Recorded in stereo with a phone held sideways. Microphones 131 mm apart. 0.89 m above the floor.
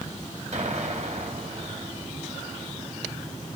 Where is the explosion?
60° right (ahead or behind), 1.9 m.